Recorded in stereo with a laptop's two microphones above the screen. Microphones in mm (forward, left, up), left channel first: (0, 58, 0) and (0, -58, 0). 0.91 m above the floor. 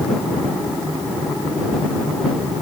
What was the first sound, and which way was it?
Only background noise.